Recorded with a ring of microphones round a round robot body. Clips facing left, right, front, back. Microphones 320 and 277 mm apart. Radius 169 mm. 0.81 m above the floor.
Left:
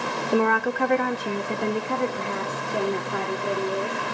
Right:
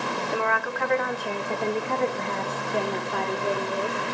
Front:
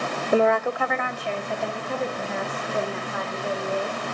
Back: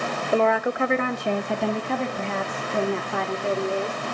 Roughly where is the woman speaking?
Left.